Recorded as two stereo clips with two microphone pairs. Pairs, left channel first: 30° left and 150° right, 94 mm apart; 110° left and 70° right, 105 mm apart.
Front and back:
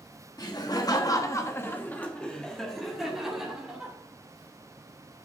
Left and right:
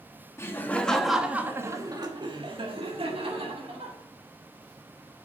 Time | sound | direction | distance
0.4 | laughter | 55° left | 1.5 m